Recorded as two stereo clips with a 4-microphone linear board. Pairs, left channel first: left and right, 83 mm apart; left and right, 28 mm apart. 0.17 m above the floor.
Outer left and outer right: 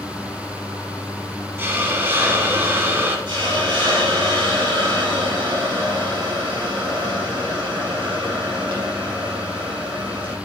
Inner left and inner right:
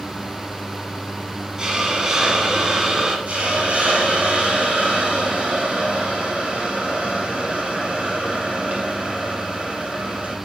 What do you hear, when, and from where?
1.6 s a hiss: 25° right (ahead or behind), 1.3 m
3.3 s a hiss: 70° right (ahead or behind), 3 m